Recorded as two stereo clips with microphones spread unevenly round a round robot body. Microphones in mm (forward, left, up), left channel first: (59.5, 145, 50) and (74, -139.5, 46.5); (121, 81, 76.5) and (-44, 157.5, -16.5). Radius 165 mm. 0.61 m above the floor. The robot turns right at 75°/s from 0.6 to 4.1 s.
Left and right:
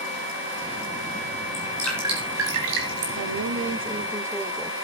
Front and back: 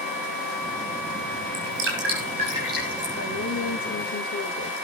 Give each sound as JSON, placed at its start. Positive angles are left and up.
{"t": 1.5, "sound": "dripping", "azimuth_deg": 155, "distance_m": 4.5}
{"t": 3.2, "sound": "a woman speaking", "azimuth_deg": -80, "distance_m": 1.7}